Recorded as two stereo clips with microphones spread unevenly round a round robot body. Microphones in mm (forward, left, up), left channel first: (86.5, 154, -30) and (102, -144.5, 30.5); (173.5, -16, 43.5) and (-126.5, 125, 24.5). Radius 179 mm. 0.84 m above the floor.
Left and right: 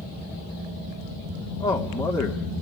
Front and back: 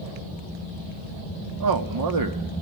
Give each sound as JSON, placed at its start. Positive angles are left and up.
{"t": 1.6, "sound": "a man speaking", "azimuth_deg": 165, "distance_m": 1.9}